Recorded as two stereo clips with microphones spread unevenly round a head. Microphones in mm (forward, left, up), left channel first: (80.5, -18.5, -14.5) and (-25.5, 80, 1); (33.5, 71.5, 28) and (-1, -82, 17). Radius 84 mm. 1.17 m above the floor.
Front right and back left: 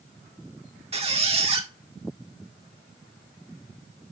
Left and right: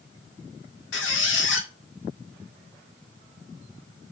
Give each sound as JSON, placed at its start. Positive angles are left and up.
{"t": 0.9, "sound": "a squeak", "azimuth_deg": 90, "distance_m": 1.9}